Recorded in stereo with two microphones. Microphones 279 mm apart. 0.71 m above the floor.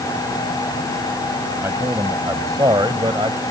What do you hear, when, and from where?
1.6 s a man speaking: 10° right (ahead or behind); by 3.4 s 20° right (ahead or behind)